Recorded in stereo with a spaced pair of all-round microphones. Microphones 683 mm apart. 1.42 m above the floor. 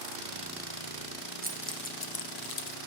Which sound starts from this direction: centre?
Keys jangling, at 1.4 s.